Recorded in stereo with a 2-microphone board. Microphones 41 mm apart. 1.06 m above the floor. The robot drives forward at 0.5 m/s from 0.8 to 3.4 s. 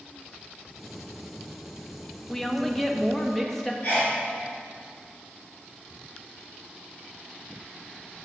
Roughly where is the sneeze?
Left.